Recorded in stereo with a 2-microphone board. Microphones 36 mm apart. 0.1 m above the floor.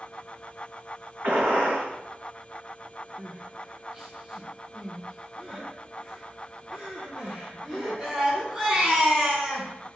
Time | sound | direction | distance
1.2 | a gunshot | 65° right (ahead or behind) | 2.0 m
3.2 | crying | 15° right (ahead or behind) | 1.0 m